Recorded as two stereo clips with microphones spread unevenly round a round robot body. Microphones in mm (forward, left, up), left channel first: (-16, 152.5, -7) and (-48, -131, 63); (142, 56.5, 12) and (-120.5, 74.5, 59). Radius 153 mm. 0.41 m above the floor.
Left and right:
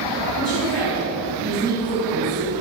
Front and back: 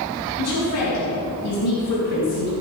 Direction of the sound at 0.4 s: Straight ahead.